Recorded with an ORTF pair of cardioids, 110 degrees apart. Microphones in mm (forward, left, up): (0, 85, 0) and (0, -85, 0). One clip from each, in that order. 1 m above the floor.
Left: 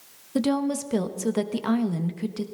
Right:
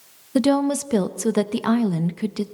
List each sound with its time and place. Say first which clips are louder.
0.3 s a woman speaking: right 6 dB; 25° right, 0.8 m